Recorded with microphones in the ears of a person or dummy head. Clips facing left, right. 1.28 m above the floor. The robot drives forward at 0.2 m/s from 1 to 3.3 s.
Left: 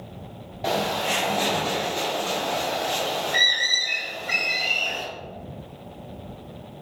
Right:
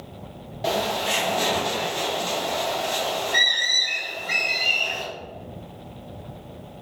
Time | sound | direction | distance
0.6 | a bird | 5° right (ahead or behind) | 0.5 m